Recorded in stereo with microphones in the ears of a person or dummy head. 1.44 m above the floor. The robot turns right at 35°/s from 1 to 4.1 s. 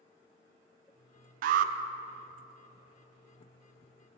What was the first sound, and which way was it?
An alarm, 55° right (ahead or behind).